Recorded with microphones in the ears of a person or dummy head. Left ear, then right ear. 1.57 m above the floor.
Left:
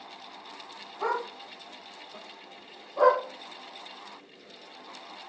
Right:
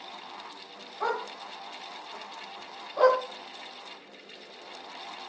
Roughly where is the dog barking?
Right.